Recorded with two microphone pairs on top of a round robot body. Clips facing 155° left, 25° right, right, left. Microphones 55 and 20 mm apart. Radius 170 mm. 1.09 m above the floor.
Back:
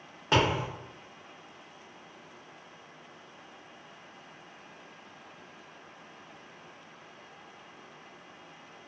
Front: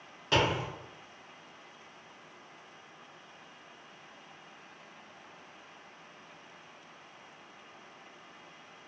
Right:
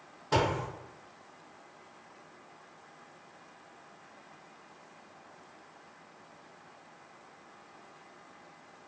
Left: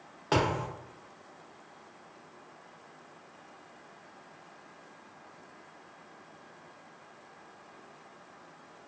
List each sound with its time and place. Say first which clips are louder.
0.3 s a thud: back 2 dB, left 1 dB; 70° left, 0.6 m